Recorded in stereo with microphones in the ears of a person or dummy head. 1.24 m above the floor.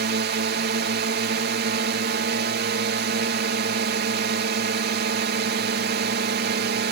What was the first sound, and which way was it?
A drone, 50° right (ahead or behind).